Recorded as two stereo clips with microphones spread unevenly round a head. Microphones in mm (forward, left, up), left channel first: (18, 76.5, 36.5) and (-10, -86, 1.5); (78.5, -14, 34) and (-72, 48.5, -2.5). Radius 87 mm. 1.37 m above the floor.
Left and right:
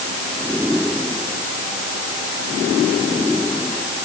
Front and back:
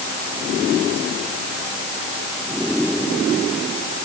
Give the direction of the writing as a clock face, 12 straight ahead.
No writing in this recording.